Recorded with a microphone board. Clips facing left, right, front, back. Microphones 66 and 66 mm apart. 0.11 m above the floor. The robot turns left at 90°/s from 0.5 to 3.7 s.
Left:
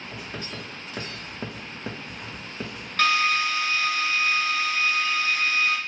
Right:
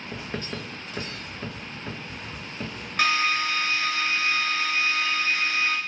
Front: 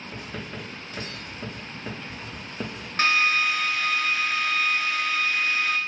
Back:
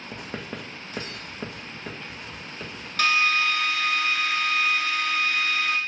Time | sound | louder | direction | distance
0.1 | writing | right 4 dB, back 2 dB | 150° right | 1.1 m
3.0 | a drill | left 2 dB, even | 25° right | 0.7 m